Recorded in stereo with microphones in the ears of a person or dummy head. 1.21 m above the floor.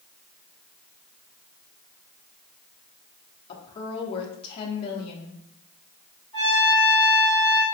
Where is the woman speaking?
35° left (ahead or behind), 1.1 m.